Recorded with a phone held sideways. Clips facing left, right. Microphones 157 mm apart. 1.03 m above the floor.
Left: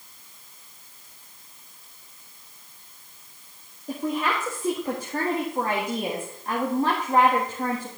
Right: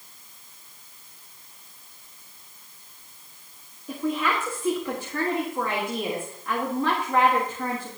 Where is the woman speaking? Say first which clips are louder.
Even; 40° left (ahead or behind), 1.7 m.